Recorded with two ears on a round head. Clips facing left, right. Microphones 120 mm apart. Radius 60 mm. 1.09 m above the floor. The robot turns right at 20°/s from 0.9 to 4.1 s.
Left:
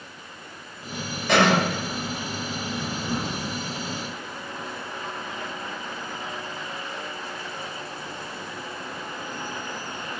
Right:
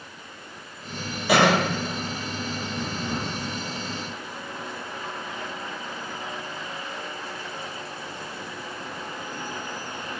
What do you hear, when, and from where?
1.3 s a cough: 5° right (ahead or behind), 1.3 m; by 1.6 s 15° right (ahead or behind), 1.3 m